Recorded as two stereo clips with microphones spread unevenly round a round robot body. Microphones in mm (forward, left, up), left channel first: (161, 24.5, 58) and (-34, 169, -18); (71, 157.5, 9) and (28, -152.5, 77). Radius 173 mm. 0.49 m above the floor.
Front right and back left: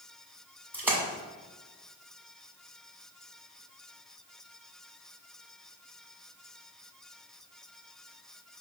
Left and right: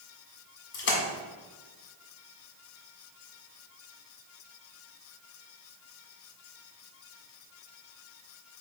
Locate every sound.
0.7 s a splash: 85° left, 1.4 m